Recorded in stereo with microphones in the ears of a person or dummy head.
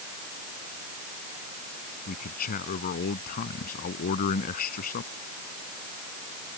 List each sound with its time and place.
2.1 s a man speaking: 45° left (ahead or behind)